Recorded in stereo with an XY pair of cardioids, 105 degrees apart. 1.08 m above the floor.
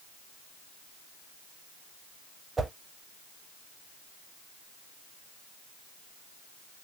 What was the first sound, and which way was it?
A whoosh, 30° right.